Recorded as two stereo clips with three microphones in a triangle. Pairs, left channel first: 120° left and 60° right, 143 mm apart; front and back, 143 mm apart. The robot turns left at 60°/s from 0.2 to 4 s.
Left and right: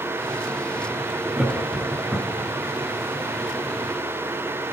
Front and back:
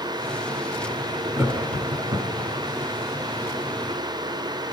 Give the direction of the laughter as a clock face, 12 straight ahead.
4 o'clock.